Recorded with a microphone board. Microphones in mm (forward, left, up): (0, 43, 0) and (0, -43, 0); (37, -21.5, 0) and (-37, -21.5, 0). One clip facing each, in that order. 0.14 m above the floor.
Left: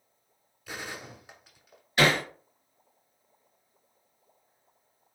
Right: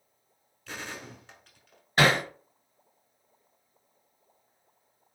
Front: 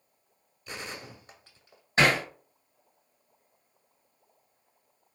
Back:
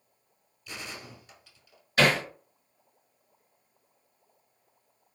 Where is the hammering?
55° right, 1.7 m.